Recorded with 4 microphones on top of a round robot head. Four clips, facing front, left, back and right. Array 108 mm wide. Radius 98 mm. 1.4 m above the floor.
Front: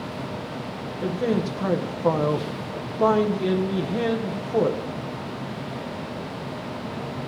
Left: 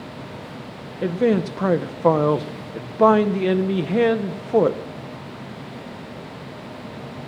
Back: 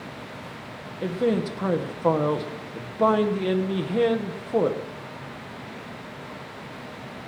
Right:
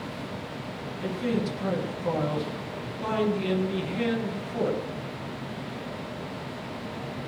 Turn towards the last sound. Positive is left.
turn(degrees=95)